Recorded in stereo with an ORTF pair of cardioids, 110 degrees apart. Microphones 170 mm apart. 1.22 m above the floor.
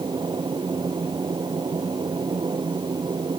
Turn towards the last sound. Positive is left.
turn(degrees=-25)